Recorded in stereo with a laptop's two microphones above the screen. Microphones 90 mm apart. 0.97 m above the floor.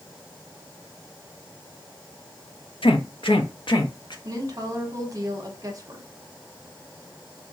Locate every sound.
2.8 s a man speaking: 75° left (ahead or behind), 0.7 m; by 4.2 s 60° left (ahead or behind), 1.0 m
4.2 s a woman speaking: 40° right (ahead or behind), 0.8 m